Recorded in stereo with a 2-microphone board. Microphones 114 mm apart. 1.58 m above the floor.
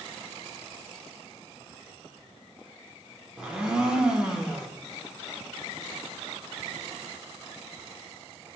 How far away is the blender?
About 0.9 m.